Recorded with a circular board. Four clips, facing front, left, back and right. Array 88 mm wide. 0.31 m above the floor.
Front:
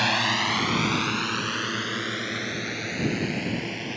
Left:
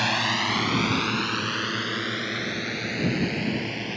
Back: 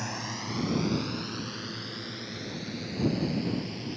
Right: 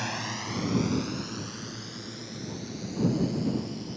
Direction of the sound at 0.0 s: 30° left.